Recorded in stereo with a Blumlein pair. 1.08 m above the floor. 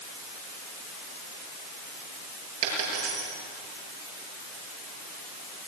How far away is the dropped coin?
About 8 m.